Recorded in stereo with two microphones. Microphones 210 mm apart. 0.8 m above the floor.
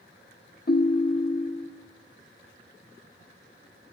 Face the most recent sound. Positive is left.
turn(degrees=50)  # may be behind; listen again after turning